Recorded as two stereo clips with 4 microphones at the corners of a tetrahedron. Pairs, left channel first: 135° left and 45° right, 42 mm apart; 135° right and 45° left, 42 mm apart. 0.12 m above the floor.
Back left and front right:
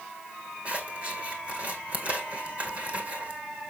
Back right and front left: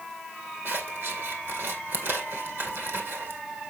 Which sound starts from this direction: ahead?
Scissors, at 0.7 s.